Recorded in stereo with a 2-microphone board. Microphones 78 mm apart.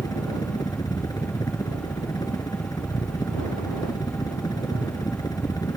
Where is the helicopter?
60° left (ahead or behind).